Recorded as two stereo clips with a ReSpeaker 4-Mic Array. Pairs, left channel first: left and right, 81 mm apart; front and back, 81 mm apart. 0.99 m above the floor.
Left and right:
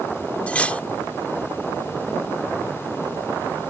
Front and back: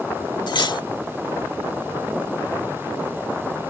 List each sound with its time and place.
0.5 s cutlery clinking: 15° left